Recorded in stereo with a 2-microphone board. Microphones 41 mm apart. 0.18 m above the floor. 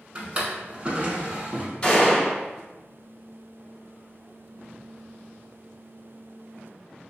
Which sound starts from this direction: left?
A gunshot, at 1.8 s.